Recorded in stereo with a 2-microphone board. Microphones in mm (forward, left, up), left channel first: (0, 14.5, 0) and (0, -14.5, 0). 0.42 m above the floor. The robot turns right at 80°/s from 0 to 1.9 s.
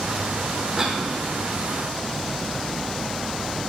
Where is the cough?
20° right (ahead or behind), 0.8 m; by 1.0 s 25° right (ahead or behind), 0.8 m.